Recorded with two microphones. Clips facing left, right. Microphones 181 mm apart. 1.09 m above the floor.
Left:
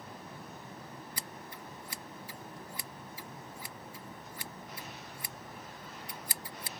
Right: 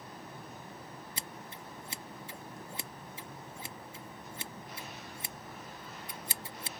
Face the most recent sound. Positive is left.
turn(degrees=-25)  # may be behind; listen again after turning